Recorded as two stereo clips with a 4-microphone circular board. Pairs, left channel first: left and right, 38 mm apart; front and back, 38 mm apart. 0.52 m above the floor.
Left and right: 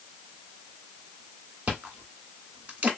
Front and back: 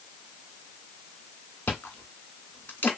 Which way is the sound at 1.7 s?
45° right.